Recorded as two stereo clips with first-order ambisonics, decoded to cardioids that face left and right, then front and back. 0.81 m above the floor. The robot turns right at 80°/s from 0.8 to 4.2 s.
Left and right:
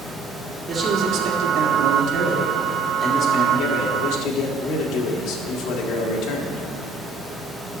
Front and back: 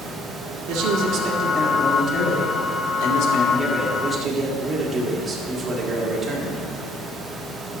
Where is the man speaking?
165° right, 1.7 m; by 6.7 s 105° left, 1.7 m.